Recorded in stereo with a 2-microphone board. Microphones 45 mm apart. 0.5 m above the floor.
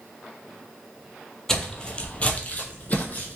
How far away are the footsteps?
About 0.6 m.